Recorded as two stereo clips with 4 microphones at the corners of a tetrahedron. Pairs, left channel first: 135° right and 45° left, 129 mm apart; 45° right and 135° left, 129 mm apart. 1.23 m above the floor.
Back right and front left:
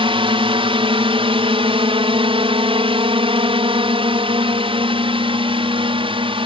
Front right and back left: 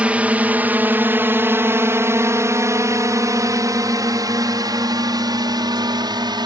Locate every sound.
0.0 s a drone: 60° left; by 6.5 s 85° left